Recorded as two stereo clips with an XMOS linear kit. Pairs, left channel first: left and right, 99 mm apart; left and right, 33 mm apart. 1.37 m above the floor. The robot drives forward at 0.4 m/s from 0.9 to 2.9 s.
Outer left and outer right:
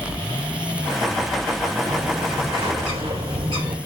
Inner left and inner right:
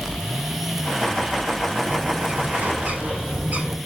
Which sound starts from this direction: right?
A bird, at 1.9 s.